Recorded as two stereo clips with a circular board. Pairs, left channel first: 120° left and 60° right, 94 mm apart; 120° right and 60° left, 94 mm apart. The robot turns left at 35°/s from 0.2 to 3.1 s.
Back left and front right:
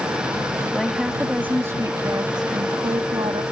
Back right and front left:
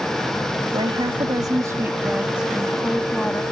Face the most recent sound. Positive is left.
turn(degrees=-50)